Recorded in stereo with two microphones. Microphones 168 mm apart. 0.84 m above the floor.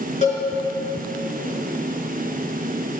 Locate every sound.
0.2 s a cowbell: 45° left (ahead or behind), 5.5 m